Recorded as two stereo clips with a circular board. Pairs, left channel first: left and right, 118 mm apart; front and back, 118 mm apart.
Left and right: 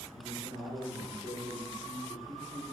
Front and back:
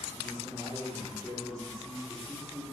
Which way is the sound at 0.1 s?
120° right.